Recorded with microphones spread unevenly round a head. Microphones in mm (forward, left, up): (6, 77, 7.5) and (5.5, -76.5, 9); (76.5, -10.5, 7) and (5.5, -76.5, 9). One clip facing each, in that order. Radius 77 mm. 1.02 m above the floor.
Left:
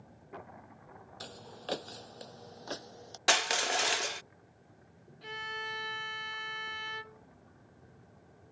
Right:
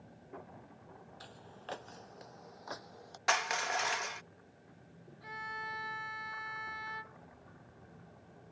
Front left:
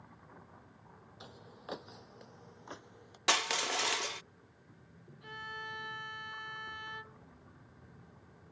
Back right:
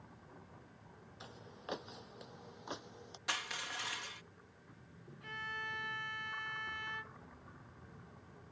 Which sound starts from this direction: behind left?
Footsteps, at 1.2 s.